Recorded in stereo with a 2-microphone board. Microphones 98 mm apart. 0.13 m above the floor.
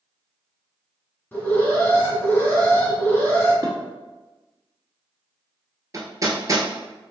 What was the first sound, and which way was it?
An alarm, 15° left (ahead or behind).